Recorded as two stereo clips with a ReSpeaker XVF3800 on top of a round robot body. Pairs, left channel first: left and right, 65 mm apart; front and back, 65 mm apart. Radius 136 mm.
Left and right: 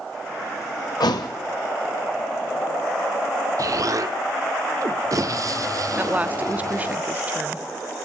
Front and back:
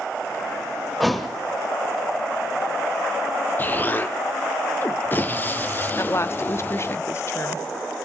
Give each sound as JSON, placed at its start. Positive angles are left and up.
{"t": 1.0, "sound": "a thud", "azimuth_deg": 90, "distance_m": 1.5}
{"t": 3.6, "sound": "an explosion", "azimuth_deg": -60, "distance_m": 0.9}
{"t": 6.0, "sound": "a woman speaking", "azimuth_deg": -30, "distance_m": 0.9}